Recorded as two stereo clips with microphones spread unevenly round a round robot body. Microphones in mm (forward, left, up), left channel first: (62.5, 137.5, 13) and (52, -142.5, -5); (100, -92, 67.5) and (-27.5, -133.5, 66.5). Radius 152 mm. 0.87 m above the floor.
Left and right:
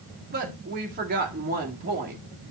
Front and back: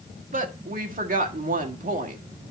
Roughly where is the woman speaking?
Behind right.